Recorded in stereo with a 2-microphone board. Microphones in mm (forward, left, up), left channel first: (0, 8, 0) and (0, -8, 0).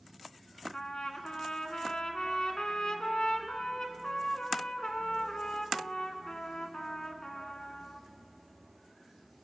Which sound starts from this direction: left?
A trumpet, at 0.7 s.